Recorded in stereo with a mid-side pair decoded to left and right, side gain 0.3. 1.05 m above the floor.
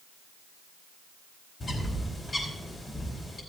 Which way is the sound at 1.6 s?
45° left.